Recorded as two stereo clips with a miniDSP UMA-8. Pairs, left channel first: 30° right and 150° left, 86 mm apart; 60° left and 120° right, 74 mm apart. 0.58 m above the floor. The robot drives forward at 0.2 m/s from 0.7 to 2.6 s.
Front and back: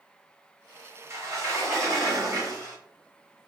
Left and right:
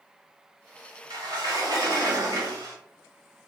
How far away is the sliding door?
About 1.0 m.